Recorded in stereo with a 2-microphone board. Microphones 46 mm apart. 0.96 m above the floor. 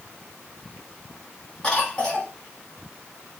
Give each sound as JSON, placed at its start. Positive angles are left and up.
{"t": 1.6, "sound": "a cough", "side_deg": 20, "distance_m": 2.0}